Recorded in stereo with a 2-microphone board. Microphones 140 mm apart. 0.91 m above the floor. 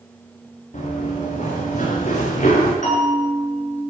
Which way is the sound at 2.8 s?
60° left (ahead or behind).